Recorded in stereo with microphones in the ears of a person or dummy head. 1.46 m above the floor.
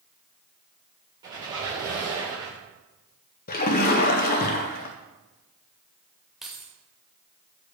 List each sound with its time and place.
1.2 s a squeak: 25° right (ahead or behind), 3.5 m
3.5 s a splash: 50° left (ahead or behind), 0.8 m
6.4 s keys jangling: 5° right (ahead or behind), 1.4 m